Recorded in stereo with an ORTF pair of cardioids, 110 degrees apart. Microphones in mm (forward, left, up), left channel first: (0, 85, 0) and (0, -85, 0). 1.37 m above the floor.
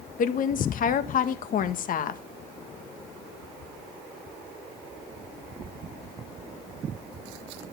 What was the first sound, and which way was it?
A woman speaking, 55° left.